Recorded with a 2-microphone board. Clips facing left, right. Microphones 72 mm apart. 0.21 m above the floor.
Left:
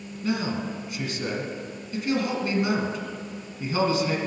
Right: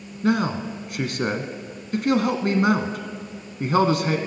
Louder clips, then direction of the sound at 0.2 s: Right 5 dB; 55° right (ahead or behind).